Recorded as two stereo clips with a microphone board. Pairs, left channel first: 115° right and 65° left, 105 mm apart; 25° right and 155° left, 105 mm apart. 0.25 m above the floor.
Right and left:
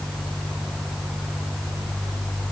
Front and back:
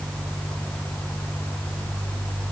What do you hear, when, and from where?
Only background noise.